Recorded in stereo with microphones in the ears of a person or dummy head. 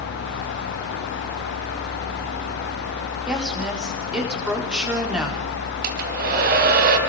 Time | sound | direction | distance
3.3 | a woman speaking | 15° right (ahead or behind) | 4 m
5.8 | a hair dryer | 40° right (ahead or behind) | 3 m